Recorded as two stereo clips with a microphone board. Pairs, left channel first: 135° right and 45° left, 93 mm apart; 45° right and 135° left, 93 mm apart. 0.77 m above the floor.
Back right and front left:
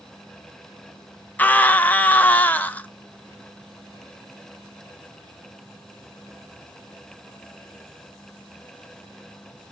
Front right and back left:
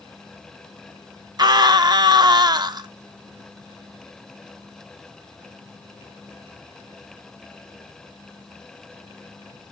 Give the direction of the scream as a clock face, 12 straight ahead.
7 o'clock.